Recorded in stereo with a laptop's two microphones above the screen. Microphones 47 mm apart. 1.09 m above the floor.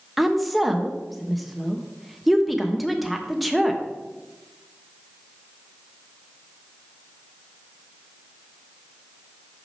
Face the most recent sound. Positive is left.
turn(degrees=0)  # may be behind; listen again after turning